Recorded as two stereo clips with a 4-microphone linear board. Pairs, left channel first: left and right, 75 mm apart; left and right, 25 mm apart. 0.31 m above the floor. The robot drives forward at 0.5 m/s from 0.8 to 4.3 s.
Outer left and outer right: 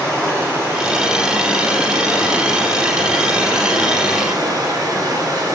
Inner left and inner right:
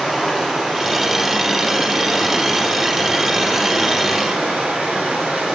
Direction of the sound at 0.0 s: 30° right (ahead or behind).